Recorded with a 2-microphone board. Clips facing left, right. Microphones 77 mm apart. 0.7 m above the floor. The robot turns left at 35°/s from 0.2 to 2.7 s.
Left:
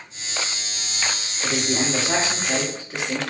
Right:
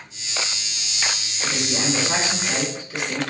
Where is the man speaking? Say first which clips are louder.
Left 1 dB; 90° left, 1.9 m; by 3.2 s 45° left, 1.9 m.